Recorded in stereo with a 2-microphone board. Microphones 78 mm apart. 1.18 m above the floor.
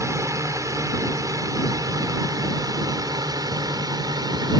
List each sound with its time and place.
0.0 s a drone: 40° right (ahead or behind); by 4.6 s 55° right (ahead or behind)